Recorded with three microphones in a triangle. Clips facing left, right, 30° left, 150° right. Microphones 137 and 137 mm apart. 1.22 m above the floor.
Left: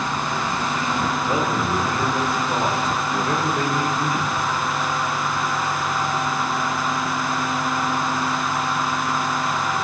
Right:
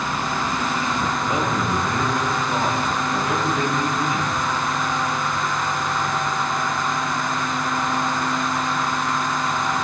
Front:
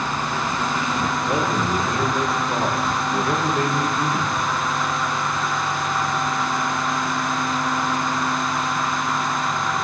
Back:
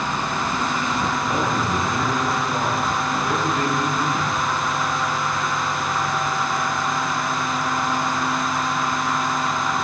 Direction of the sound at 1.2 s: 35° left.